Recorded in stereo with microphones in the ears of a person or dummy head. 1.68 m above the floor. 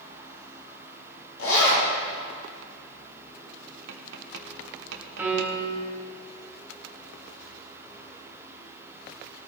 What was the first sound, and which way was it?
A zipper, 75° left (ahead or behind).